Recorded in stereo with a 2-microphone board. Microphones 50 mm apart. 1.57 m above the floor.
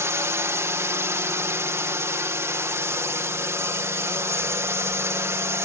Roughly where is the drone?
Right.